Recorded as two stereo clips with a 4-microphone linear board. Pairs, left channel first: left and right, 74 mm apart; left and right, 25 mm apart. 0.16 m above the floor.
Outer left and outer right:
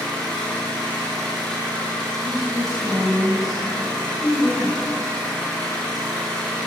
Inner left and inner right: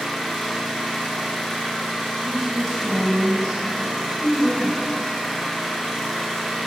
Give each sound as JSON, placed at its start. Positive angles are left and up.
{"t": 0.0, "sound": "an engine running", "side_deg": 5, "distance_m": 1.1}
{"t": 2.2, "sound": "a woman speaking", "side_deg": -10, "distance_m": 1.0}